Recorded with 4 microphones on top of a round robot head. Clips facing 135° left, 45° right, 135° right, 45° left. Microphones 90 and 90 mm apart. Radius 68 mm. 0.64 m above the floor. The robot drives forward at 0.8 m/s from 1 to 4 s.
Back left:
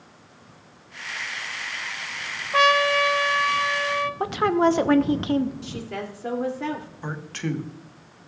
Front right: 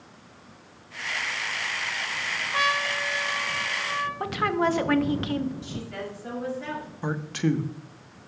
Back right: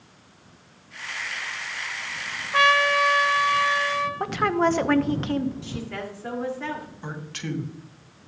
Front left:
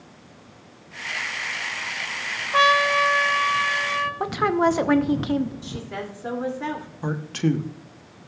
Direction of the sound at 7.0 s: 25° left.